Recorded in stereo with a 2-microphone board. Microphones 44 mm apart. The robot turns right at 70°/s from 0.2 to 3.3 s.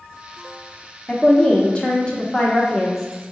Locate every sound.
1.1 s a woman speaking: 15° left (ahead or behind), 0.8 m; by 3.1 s 5° left (ahead or behind), 0.8 m